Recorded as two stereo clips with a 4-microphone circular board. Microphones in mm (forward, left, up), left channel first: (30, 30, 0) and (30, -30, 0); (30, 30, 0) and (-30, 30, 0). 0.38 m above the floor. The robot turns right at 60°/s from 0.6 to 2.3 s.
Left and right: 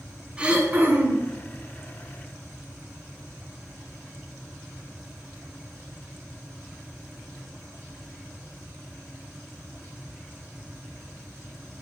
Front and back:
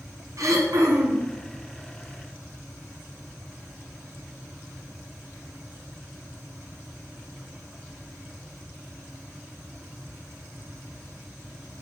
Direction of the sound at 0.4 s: 160° right.